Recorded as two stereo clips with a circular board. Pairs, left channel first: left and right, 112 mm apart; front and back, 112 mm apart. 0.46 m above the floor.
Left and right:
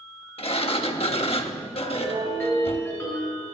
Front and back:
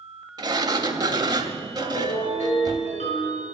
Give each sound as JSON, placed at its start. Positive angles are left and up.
{"t": 0.4, "sound": "a sliding door", "azimuth_deg": 125, "distance_m": 0.9}
{"t": 1.8, "sound": "a ringtone", "azimuth_deg": 20, "distance_m": 5.0}